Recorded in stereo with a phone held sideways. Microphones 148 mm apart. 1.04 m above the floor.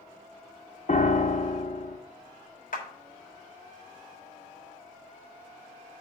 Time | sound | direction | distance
0.9 | a piano | 50° left (ahead or behind) | 0.7 m
2.7 | a clap | 70° left (ahead or behind) | 1.6 m